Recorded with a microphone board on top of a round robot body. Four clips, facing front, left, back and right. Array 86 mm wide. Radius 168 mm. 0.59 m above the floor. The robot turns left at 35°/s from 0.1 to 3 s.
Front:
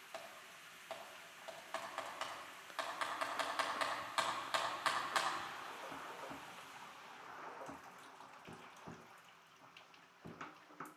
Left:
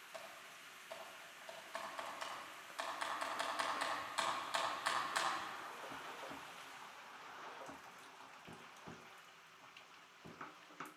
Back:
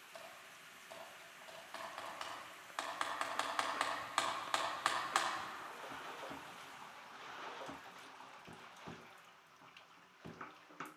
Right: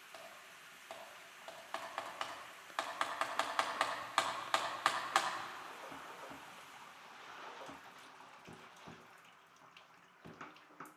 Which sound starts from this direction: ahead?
Typing on a keyboard, at 0.1 s.